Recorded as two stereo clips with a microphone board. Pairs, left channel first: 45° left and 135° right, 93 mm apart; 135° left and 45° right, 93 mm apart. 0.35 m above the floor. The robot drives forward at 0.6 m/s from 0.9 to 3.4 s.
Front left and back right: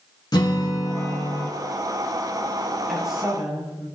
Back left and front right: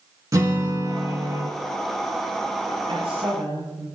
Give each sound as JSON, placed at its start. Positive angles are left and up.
{"t": 0.3, "sound": "a guitar", "azimuth_deg": 5, "distance_m": 3.0}
{"t": 2.9, "sound": "a woman speaking", "azimuth_deg": -50, "distance_m": 7.5}